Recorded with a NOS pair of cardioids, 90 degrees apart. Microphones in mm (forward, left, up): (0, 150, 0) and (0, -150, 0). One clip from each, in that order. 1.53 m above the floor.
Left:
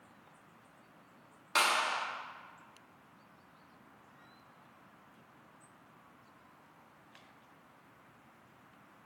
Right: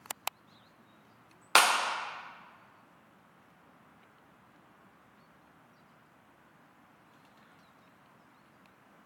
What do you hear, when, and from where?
1.6 s a clap: 60° right, 0.5 m